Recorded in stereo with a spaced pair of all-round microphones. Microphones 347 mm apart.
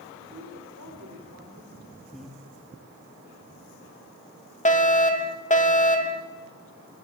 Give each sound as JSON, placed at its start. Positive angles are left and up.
{"t": 0.3, "sound": "a woman speaking", "side_deg": -55, "distance_m": 4.5}
{"t": 2.1, "sound": "breathing", "side_deg": 0, "distance_m": 1.4}
{"t": 4.7, "sound": "a fire alarm", "side_deg": 25, "distance_m": 2.5}